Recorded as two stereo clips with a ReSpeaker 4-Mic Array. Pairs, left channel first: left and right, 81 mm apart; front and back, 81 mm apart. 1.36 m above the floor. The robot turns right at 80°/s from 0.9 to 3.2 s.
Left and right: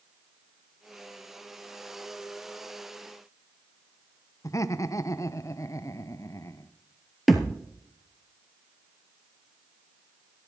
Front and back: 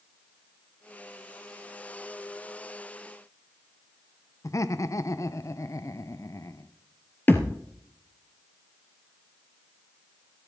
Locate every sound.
4.4 s laughter: 45° left, 0.7 m
7.3 s a thud: straight ahead, 1.4 m